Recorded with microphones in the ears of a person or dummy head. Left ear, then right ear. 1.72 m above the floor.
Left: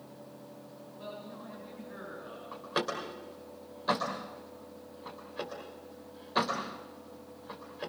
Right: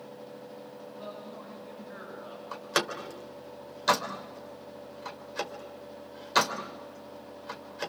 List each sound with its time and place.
1.0 s a man speaking: 15° right (ahead or behind), 9.5 m; by 2.4 s 20° right (ahead or behind), 10 m
2.5 s a door slam: 75° right (ahead or behind), 4 m